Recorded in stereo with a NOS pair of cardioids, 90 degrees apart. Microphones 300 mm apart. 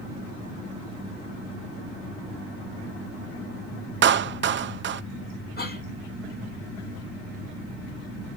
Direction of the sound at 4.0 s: 40° right.